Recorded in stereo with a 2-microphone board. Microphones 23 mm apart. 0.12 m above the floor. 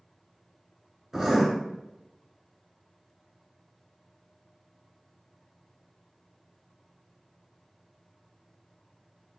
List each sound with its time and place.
1.1 s writing: 10° right (ahead or behind), 1.2 m